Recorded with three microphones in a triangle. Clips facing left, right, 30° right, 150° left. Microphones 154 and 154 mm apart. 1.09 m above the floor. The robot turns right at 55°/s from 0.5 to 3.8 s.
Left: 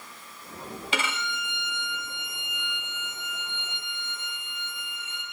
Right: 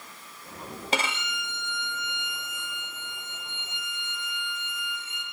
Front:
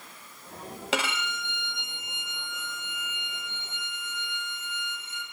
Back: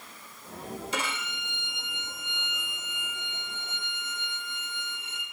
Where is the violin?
40° right, 0.9 m; by 5.2 s 120° left, 0.9 m.